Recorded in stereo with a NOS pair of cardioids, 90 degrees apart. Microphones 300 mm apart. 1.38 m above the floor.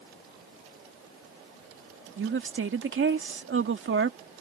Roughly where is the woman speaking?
Ahead right.